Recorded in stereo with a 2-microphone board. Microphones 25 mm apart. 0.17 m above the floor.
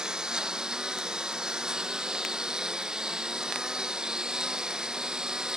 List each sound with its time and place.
0.0 s a lawn mower: 30° right (ahead or behind)